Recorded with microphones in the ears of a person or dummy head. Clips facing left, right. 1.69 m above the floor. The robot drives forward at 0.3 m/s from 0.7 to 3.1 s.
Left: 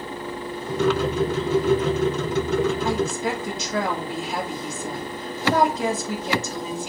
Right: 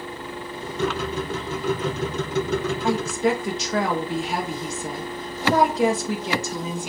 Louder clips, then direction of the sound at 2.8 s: Right 2 dB; 55° right (ahead or behind).